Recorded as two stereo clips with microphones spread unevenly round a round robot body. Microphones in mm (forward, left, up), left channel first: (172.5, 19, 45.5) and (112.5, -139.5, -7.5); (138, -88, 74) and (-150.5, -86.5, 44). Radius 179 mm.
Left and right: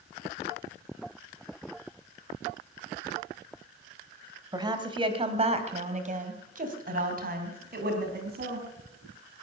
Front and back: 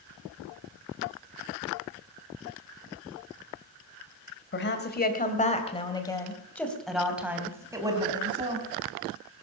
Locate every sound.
4.5 s a woman speaking: 50° right, 3 m; by 8.7 s 110° right, 4 m